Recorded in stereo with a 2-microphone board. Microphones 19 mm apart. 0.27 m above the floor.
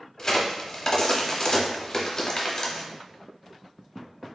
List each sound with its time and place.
0.2 s a crack: 30° left (ahead or behind), 0.9 m